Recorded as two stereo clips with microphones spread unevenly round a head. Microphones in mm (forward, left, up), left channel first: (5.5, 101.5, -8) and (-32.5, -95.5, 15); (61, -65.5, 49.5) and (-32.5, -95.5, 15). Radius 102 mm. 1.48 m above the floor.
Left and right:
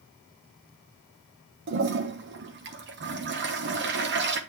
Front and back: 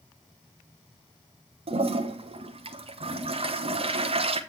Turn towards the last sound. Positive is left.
turn(degrees=-135)